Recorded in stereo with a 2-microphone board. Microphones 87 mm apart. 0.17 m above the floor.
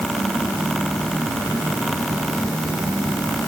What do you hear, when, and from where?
Only background noise.